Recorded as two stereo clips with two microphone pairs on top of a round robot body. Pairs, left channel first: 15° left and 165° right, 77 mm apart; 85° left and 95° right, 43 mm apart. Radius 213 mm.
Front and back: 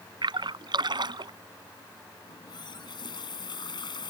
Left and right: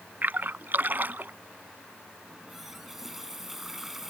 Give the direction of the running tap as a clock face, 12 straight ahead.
12 o'clock.